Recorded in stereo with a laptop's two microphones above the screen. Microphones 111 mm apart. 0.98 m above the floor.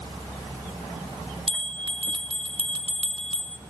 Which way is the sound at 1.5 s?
50° right (ahead or behind).